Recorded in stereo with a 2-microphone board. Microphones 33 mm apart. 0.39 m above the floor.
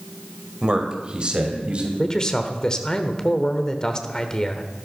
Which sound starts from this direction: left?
A man speaking, at 2.0 s.